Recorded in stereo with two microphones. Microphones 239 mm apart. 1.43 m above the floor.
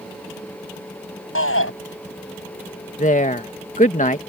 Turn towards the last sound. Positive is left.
turn(degrees=35)  # may be behind; listen again after turning